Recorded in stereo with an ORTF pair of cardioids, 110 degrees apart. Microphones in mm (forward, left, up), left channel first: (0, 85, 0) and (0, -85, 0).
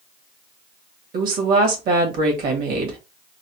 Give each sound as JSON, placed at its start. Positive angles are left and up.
{"t": 1.1, "sound": "a woman speaking", "azimuth_deg": -65, "distance_m": 1.8}